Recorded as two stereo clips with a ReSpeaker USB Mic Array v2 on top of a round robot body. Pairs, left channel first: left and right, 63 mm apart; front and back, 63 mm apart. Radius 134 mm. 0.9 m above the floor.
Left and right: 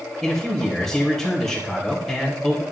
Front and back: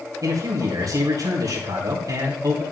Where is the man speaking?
175° left, 2.5 m.